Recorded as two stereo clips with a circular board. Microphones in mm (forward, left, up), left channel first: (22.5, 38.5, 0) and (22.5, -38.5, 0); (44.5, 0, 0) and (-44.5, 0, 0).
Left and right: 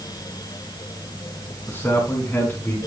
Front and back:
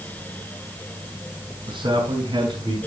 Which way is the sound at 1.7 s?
155° left.